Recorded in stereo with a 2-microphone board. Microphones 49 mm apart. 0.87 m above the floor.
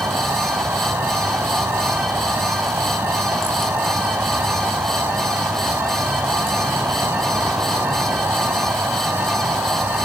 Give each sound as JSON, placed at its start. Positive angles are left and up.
{"t": 0.0, "sound": "an insect", "side_deg": -60, "distance_m": 2.5}